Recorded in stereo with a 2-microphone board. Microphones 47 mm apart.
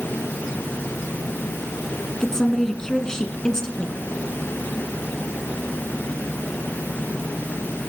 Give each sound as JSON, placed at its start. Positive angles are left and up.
{"t": 2.2, "sound": "a woman speaking", "side_deg": 10, "distance_m": 1.6}